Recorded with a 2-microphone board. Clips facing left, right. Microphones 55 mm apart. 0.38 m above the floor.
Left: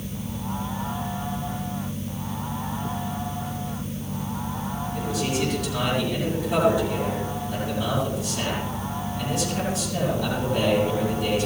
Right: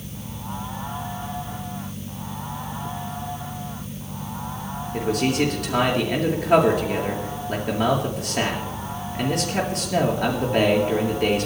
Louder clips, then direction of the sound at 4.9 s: Right 6 dB; 55° right (ahead or behind).